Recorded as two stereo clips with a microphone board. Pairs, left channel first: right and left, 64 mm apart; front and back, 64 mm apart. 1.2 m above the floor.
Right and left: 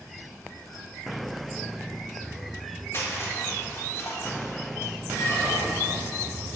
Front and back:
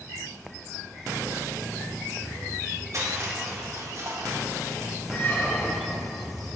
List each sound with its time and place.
2.9 s crushing: 140° right, 1.5 m
5.1 s a squeak: 50° right, 1.9 m